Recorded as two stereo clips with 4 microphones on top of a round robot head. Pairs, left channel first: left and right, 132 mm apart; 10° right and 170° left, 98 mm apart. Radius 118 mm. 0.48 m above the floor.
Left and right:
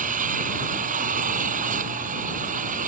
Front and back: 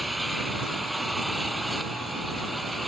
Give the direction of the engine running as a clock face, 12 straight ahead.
3 o'clock.